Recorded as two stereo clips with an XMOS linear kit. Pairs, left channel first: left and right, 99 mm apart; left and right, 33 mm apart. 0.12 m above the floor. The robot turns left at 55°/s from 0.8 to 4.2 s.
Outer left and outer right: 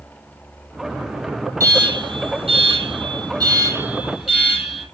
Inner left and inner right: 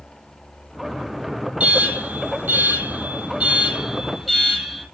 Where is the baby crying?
No baby crying in this recording.